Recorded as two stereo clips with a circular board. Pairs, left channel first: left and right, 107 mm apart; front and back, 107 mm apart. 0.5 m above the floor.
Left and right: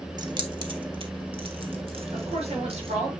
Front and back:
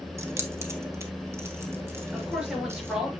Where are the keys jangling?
125° right, 1.0 m; by 3.0 s 115° right, 3.5 m.